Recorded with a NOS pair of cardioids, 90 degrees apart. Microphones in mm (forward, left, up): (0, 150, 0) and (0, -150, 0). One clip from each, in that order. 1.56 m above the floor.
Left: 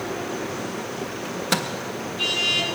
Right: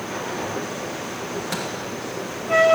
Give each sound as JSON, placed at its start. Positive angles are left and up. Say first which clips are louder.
{"t": 1.2, "sound": "a microwave", "louder": "left 5 dB", "azimuth_deg": 50, "distance_m": 1.2}